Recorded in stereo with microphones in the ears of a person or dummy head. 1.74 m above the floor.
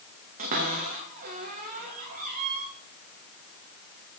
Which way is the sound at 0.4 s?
40° right (ahead or behind).